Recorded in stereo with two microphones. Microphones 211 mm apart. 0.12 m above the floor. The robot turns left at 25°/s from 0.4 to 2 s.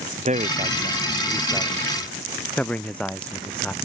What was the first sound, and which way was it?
A man speaking, 145° right.